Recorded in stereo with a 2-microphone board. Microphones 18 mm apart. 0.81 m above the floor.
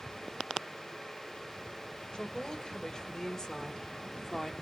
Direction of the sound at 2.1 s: 40° left (ahead or behind).